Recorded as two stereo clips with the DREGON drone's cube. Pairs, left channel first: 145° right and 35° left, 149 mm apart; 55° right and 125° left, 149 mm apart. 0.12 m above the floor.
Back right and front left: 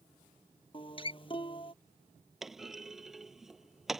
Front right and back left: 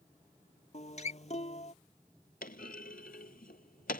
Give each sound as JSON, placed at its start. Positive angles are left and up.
{"t": 0.7, "sound": "a guitar", "azimuth_deg": -95}
{"t": 2.4, "sound": "a clunk", "azimuth_deg": -55}